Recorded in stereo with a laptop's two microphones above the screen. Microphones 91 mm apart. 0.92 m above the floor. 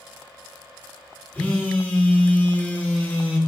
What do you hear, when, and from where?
1.3 s a phone buzzing: 15° left (ahead or behind), 0.9 m